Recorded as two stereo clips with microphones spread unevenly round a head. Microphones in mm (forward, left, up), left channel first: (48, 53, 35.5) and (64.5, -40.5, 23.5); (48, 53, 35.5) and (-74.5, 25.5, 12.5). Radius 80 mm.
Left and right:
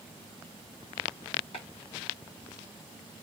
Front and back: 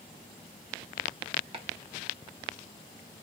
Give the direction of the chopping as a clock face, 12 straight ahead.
7 o'clock.